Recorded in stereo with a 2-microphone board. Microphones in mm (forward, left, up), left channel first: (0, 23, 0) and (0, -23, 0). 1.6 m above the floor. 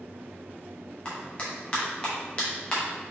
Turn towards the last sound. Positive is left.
turn(degrees=25)  # may be behind; listen again after turning